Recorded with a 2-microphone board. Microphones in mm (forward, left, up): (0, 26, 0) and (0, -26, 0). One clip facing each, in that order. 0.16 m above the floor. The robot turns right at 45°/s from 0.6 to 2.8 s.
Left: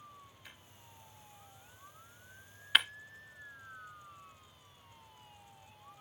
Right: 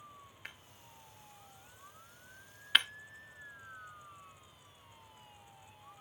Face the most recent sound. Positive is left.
turn(degrees=5)  # may be behind; listen again after turning